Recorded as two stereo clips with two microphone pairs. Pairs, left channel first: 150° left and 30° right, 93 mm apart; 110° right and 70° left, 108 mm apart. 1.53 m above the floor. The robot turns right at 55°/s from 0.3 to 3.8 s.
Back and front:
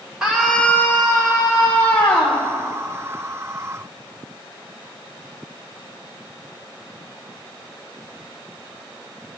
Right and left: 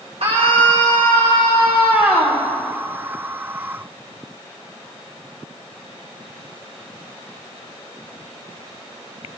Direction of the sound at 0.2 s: 50° left.